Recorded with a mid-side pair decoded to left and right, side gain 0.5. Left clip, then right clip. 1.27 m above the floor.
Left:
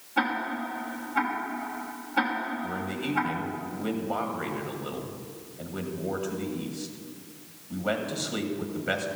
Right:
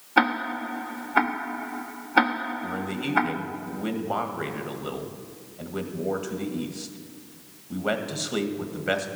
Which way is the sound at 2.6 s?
30° right.